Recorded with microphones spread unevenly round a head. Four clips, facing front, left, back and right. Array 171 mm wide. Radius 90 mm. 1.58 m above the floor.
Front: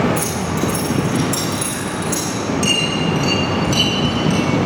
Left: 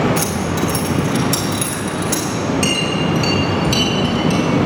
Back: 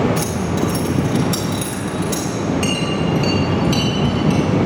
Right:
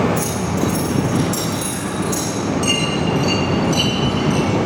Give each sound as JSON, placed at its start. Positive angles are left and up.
{"t": 0.2, "sound": "keys jangling", "azimuth_deg": 75, "distance_m": 5.0}
{"t": 2.6, "sound": "a clink", "azimuth_deg": 100, "distance_m": 6.5}